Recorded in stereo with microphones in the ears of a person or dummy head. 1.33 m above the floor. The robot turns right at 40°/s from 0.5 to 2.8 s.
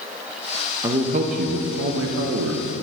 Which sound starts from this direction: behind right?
A man speaking, at 0.8 s.